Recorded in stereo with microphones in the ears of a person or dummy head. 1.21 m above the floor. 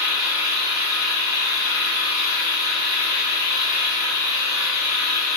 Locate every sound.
0.0 s an engine running: 25° right (ahead or behind), 2 m